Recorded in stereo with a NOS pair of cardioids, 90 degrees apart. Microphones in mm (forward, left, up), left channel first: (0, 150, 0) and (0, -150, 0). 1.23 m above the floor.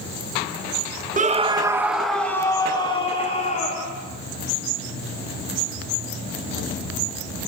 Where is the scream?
25° right, 1.4 m; by 4.0 s 25° left, 3 m.